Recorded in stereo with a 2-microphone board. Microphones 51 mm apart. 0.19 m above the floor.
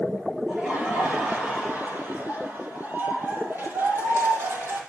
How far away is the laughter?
About 3.5 m.